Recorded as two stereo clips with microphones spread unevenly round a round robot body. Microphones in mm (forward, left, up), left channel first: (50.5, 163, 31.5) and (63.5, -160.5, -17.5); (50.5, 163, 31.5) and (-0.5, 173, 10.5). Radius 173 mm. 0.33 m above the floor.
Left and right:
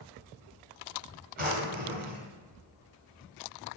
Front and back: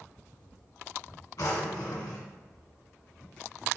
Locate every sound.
1.4 s a drawer: 25° right, 1.4 m